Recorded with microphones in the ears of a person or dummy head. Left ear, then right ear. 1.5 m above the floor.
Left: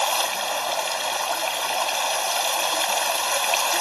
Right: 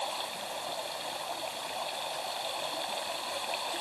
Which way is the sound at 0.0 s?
45° left (ahead or behind).